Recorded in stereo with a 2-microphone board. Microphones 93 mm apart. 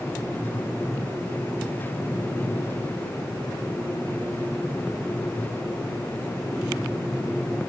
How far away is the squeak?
I don't hear a squeak.